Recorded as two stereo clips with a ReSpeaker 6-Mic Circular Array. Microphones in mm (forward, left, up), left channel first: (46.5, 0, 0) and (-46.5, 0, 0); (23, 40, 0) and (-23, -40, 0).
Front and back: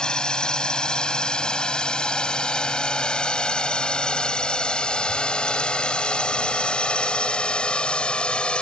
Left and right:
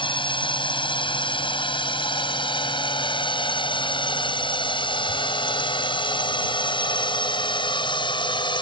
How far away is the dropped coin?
I don't hear a dropped coin.